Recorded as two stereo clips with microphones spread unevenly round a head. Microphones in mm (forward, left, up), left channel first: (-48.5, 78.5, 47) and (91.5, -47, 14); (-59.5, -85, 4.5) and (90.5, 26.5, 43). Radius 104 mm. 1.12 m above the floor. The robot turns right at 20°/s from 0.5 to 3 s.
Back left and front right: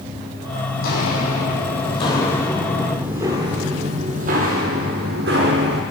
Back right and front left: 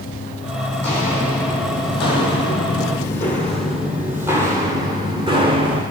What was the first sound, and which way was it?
Footsteps, 125° left.